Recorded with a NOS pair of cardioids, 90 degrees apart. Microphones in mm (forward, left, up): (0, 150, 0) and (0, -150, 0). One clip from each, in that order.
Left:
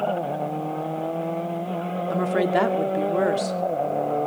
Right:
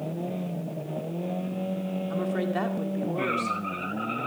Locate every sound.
2.1 s a woman speaking: 50° left, 2.5 m